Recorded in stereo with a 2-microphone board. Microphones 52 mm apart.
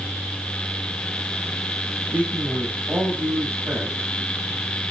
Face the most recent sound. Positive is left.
turn(degrees=-50)  # may be behind; listen again after turning